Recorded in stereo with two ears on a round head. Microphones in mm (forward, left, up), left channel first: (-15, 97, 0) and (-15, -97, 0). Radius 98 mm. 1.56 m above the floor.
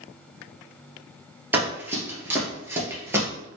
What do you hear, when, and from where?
1.5 s running footsteps: 10° right (ahead or behind), 1.7 m